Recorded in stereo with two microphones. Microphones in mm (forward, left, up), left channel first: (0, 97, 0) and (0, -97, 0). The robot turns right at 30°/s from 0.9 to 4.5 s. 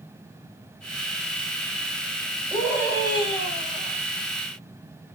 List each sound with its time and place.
2.5 s a scream: 175° right, 4 m; by 4.0 s 130° right, 4 m